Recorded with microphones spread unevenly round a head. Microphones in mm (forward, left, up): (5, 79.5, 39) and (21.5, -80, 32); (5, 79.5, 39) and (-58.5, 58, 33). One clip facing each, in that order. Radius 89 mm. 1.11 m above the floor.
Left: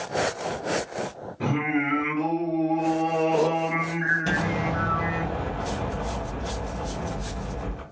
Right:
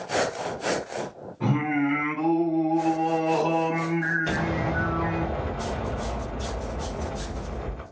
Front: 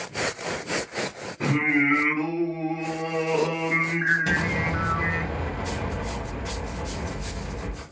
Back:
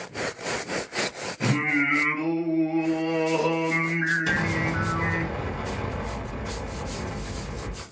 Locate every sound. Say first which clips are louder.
1.4 s singing: right 1 dB, front 2 dB; 80° left, 1.5 m
4.2 s an explosion: left 3 dB, even; 55° left, 2 m